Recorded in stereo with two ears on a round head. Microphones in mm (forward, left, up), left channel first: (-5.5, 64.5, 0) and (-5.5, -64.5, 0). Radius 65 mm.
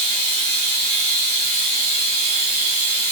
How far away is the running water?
About 1.0 m.